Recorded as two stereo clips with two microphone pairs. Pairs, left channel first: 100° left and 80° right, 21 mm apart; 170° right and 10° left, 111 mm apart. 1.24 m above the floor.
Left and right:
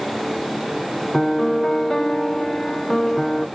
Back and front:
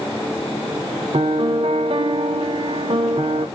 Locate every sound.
1.1 s a piano: 35° left, 0.5 m